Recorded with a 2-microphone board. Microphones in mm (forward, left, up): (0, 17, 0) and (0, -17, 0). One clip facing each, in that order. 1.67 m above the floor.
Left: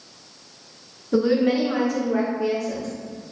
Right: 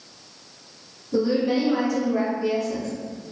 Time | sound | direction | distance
1.1 | a woman speaking | 75° left (ahead or behind) | 0.8 m